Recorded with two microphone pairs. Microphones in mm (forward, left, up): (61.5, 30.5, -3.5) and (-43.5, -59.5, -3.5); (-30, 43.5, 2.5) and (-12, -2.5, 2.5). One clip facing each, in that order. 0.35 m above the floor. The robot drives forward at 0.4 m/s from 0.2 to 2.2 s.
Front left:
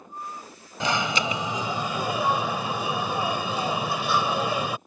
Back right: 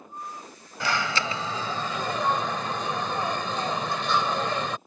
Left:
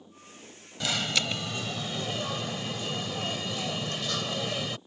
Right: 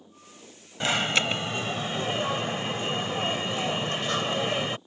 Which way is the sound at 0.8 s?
25° right.